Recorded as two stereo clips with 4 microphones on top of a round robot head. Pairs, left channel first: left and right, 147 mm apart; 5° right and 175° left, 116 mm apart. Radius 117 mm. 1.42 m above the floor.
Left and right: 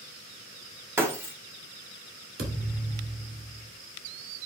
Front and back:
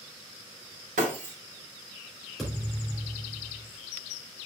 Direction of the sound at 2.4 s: 95° right.